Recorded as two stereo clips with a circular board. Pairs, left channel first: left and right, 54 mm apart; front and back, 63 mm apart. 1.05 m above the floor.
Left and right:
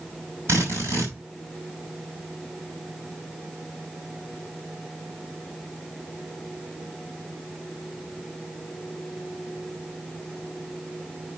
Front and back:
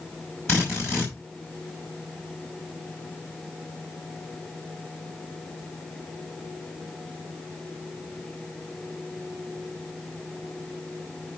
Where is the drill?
50° right, 5 m.